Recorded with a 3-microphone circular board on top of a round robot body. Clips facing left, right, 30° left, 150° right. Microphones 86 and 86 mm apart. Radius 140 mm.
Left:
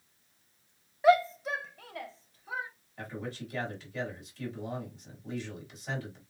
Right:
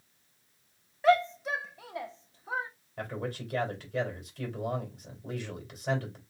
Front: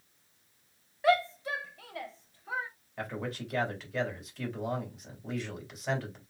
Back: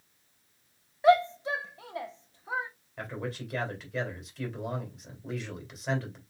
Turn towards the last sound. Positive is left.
turn(degrees=-60)